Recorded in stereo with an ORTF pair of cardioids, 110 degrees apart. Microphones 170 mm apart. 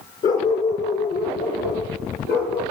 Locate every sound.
0.2 s a dog barking: 55° left, 5.5 m; by 2.6 s 70° left, 7.5 m